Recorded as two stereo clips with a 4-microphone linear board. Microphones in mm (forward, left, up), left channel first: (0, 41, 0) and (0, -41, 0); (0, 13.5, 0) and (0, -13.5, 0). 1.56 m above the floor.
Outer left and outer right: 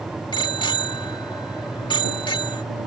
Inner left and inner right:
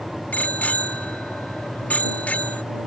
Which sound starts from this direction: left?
A bicycle bell, at 0.3 s.